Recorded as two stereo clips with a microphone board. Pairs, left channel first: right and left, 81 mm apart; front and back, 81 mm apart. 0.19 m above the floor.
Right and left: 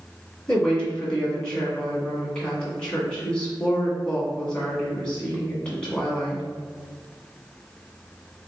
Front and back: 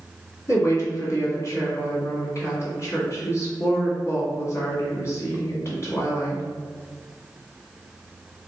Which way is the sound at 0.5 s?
20° right.